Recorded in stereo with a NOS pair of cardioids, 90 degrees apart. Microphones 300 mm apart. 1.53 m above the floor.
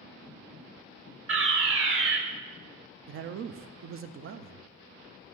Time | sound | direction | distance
1.3 | a fire alarm | 45° right | 1.8 m
3.1 | a man speaking | 45° right | 0.5 m